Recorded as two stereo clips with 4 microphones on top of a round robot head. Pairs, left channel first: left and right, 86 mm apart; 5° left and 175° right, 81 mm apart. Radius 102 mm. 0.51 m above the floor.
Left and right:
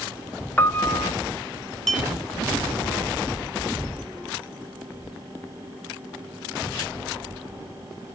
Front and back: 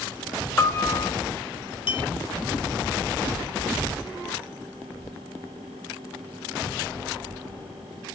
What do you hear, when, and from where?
0.6 s a piano: 35° left, 0.9 m
1.9 s a clink: 5° left, 1.8 m